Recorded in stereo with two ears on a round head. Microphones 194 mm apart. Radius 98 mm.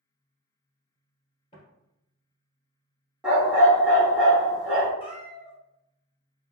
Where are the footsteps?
25° left (ahead or behind), 1.9 m.